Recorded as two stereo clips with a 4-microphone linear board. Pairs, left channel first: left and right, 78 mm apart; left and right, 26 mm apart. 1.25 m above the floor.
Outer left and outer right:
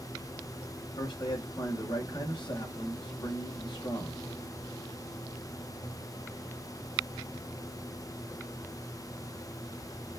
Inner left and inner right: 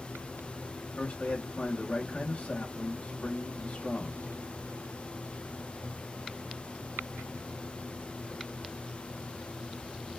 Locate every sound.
1.0 s a man speaking: 70° left (ahead or behind), 1.9 m